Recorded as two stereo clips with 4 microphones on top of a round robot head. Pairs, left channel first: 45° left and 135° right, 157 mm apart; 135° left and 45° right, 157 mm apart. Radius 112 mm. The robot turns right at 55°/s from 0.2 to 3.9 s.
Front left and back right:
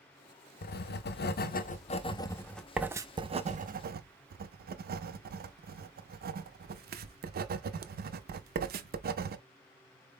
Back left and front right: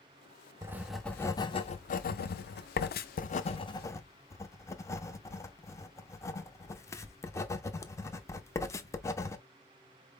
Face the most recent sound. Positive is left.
turn(degrees=-155)